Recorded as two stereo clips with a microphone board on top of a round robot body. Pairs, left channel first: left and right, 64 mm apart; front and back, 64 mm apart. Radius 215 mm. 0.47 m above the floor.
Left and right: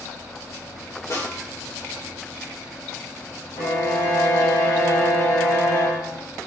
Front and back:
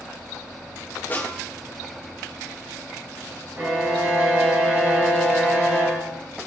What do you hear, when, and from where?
1.1 s a snare drum: 60° left, 3 m
3.5 s a violin: 120° left, 3 m